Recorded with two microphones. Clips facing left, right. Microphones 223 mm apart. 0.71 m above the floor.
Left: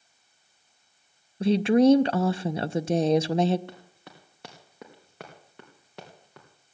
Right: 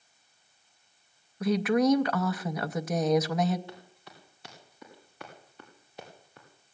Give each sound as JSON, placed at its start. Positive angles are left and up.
{"t": 1.4, "sound": "a woman speaking", "side_deg": 30, "distance_m": 0.5}
{"t": 3.7, "sound": "running footsteps", "side_deg": 65, "distance_m": 3.5}